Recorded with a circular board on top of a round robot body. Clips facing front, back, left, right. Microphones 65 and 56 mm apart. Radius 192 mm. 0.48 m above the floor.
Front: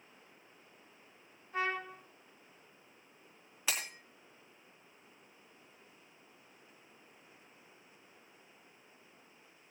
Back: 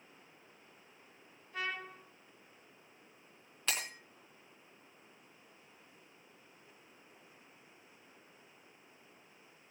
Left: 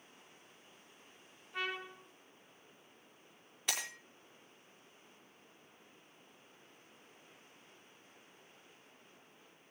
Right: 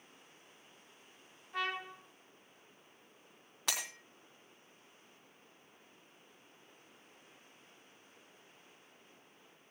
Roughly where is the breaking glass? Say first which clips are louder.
Even, even; right.